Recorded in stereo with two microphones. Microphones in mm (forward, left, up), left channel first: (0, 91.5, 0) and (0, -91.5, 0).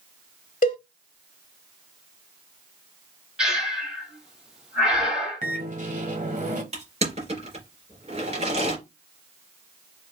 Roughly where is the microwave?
Right.